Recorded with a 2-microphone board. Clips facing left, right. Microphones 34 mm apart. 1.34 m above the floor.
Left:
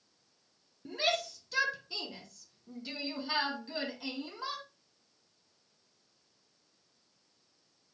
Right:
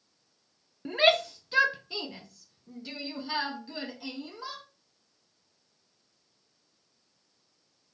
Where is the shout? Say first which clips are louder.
Right 9 dB; 55° right (ahead or behind), 0.9 m; by 4.6 s 10° left (ahead or behind), 2.5 m.